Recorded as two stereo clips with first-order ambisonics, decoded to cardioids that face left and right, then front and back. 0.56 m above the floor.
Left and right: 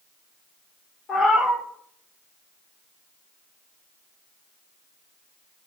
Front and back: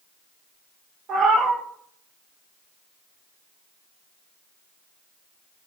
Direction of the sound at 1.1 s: 145° left.